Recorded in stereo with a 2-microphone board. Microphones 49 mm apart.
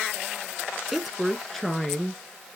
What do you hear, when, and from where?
0.9 s a woman speaking: 5° right (ahead or behind), 1.3 m; by 2.2 s 5° left (ahead or behind), 2 m